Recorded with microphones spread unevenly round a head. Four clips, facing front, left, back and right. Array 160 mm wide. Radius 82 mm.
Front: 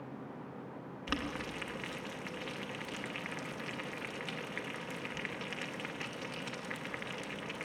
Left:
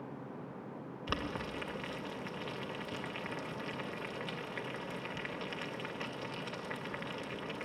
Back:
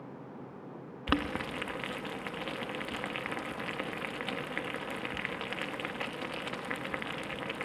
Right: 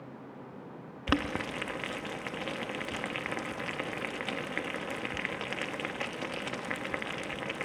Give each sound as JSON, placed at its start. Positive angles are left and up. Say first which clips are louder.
{"t": 1.1, "sound": "boiling", "louder": "right 8 dB, back 7 dB", "azimuth_deg": -115, "distance_m": 0.6}